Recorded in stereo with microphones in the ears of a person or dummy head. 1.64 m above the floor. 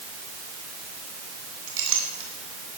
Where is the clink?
70° right (ahead or behind), 3 m.